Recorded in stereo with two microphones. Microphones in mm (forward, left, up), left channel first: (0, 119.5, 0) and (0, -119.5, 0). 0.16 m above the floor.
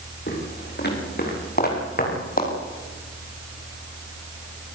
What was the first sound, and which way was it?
Footsteps, 45° left (ahead or behind).